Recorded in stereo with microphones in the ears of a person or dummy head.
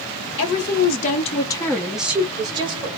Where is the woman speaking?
55° left (ahead or behind), 1.0 m; by 2.9 s 35° right (ahead or behind), 1.1 m.